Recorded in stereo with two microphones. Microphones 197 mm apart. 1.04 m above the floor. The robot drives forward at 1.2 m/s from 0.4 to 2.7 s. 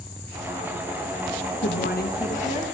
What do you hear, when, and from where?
1.6 s a woman speaking: 60° left (ahead or behind), 1.0 m; by 2.6 s 30° left (ahead or behind), 1.5 m